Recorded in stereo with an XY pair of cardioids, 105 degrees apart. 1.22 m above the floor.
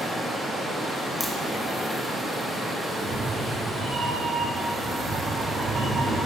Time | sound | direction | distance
0.0 | running water | 5° left | 1.4 m
1.2 | a crack | 30° left | 1.0 m
2.9 | a cat meowing | 50° right | 1.3 m